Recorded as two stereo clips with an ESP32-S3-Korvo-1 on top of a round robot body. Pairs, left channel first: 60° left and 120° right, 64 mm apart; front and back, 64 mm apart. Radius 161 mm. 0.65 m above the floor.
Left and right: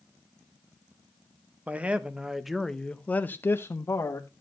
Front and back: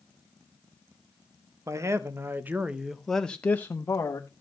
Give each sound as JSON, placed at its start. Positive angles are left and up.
{"t": 1.7, "sound": "a man speaking", "azimuth_deg": 180, "distance_m": 1.5}